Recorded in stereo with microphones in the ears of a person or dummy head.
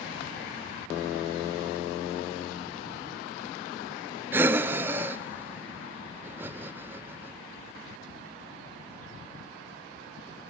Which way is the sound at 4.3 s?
15° right (ahead or behind).